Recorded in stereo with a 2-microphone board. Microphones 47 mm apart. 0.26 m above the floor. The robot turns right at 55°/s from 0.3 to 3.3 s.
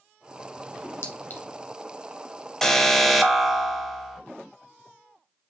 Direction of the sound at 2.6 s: 10° left (ahead or behind).